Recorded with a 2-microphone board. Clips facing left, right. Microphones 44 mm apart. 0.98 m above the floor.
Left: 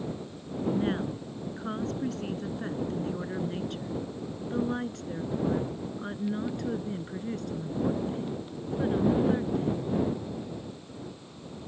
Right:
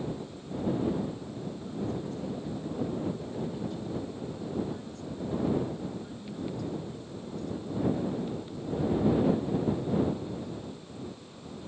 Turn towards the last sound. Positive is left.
turn(degrees=55)  # may be behind; listen again after turning